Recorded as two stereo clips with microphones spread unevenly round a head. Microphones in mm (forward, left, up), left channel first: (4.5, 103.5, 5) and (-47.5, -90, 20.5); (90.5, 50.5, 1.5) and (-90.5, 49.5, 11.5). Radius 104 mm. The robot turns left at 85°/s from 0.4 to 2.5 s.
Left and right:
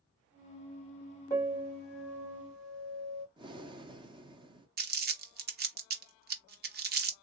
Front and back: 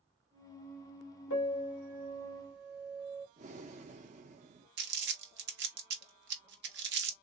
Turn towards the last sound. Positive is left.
turn(degrees=-145)